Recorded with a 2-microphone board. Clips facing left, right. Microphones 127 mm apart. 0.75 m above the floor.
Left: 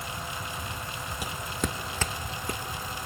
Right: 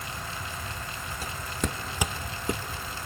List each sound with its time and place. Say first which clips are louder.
1.2 s footsteps: even; 15° left (ahead or behind), 0.9 m; by 2.6 s 25° right (ahead or behind), 1.1 m